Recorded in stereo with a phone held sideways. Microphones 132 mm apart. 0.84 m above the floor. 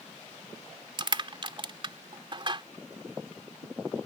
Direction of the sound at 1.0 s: 40° right (ahead or behind).